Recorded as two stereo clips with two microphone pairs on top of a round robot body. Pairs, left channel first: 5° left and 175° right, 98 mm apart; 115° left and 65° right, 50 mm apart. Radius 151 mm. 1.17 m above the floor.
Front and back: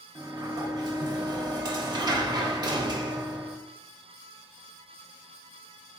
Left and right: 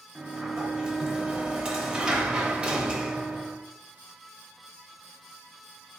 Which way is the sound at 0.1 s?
130° right.